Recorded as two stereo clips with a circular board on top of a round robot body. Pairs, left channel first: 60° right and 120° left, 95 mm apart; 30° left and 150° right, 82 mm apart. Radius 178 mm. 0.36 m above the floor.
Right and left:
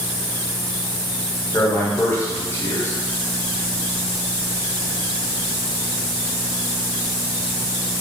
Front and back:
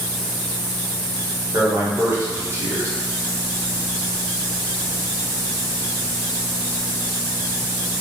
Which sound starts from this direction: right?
A man speaking, at 1.5 s.